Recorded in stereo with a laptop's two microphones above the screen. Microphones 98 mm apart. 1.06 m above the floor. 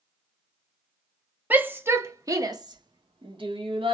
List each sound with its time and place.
1.5 s a shout: 20° right (ahead or behind), 1.4 m; by 3.9 s 65° right (ahead or behind), 1.6 m